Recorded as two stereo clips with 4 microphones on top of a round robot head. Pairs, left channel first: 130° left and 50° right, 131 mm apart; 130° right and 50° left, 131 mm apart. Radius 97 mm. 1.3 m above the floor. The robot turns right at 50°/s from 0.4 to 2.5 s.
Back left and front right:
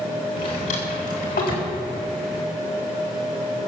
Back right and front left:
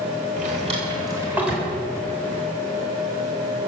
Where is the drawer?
75° left, 4 m; by 1.7 s 140° left, 4 m.